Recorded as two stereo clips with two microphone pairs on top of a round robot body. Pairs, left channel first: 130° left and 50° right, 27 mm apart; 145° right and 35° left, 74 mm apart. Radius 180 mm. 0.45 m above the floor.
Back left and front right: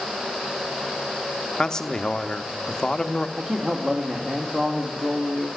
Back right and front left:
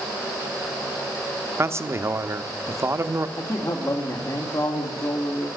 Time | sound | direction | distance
1.6 | a man speaking | 60° left | 1.2 m
3.4 | a man speaking | 110° right | 2 m